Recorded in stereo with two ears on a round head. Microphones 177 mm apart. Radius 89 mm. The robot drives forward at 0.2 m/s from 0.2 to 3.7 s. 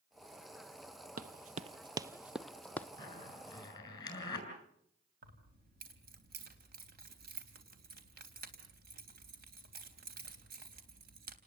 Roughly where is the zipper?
Left.